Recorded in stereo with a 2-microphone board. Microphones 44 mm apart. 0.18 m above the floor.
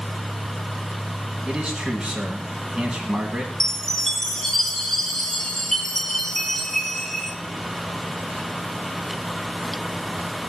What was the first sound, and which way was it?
A man speaking, 20° right (ahead or behind).